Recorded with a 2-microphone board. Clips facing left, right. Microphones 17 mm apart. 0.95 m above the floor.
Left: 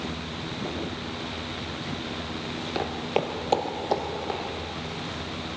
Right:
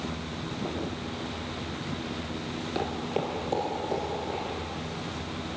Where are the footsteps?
15° left (ahead or behind), 0.9 m; by 4.4 s 50° left (ahead or behind), 3 m.